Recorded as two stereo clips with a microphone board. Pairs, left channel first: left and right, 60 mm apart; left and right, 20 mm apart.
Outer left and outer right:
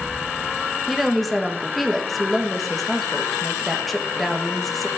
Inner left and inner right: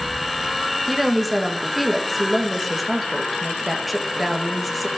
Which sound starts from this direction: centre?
A woman speaking, at 0.9 s.